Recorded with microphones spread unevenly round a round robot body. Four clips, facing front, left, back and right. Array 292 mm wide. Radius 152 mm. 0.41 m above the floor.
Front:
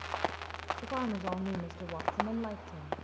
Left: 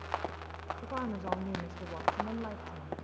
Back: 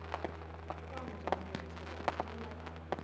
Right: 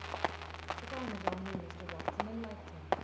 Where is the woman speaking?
20° left, 1.9 m.